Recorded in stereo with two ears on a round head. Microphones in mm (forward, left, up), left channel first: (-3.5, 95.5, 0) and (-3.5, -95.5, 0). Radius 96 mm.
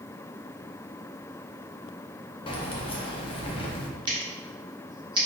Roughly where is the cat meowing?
I don't hear a cat meowing.